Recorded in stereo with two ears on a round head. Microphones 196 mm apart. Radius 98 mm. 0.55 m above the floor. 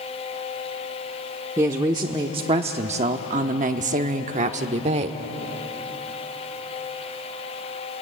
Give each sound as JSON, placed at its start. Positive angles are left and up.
{"t": 1.6, "sound": "a woman speaking", "side_deg": -15, "distance_m": 1.2}